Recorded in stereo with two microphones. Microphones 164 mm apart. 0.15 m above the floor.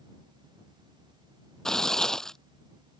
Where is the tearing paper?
5° left (ahead or behind).